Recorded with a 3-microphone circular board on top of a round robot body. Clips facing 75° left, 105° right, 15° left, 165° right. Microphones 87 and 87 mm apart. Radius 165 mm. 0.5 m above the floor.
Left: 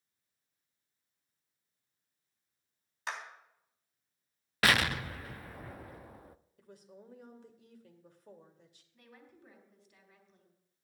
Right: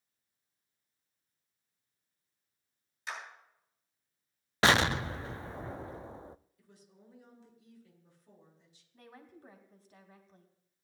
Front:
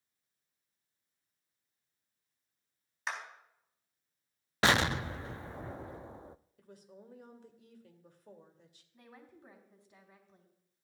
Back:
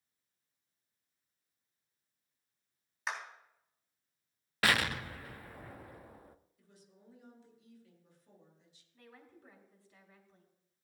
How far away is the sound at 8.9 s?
About 2.5 m.